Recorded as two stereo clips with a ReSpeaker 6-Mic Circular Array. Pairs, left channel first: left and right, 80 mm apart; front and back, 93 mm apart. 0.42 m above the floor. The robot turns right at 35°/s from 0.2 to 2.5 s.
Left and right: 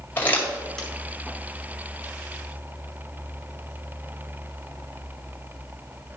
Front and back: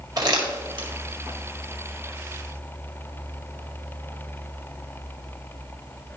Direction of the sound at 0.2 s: 150° left.